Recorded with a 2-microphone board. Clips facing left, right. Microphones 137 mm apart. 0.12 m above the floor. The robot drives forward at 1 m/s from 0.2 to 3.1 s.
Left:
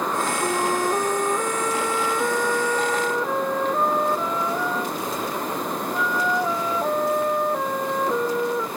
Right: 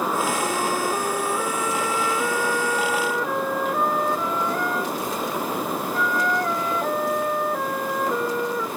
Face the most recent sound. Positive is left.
turn(degrees=10)  # may be behind; listen again after turning